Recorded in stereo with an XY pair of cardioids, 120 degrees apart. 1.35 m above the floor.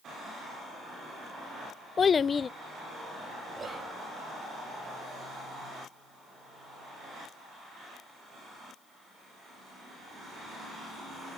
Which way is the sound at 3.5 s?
25° right.